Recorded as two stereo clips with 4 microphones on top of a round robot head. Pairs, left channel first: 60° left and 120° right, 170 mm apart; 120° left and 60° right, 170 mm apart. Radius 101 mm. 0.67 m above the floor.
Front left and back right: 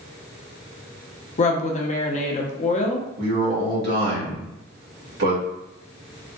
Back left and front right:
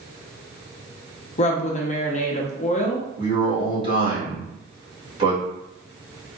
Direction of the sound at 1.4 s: 90° left.